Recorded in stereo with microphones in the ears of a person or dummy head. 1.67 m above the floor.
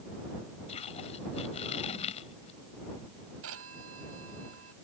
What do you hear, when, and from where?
0.7 s tape being pulled: 30° left (ahead or behind)
3.4 s a phone ringing: 75° right (ahead or behind)